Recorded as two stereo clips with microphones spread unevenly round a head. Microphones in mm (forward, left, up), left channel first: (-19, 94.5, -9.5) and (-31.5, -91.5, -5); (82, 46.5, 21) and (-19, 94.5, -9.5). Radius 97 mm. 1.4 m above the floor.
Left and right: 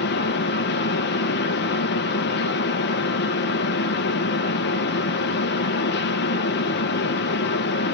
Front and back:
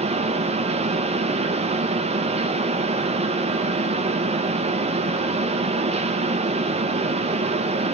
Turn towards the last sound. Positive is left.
turn(degrees=120)